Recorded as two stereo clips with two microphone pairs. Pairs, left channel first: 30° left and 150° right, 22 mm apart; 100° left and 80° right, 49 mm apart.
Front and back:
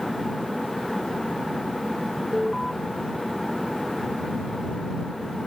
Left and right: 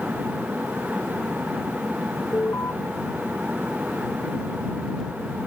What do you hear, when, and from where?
2.3 s an alarm: 125° left